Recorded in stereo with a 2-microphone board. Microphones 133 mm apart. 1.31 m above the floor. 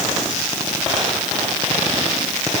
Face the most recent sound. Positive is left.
No sound to turn to.